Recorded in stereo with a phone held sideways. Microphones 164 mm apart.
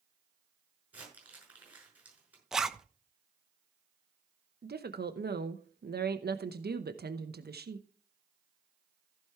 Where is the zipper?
Centre (ahead or behind), 0.9 m.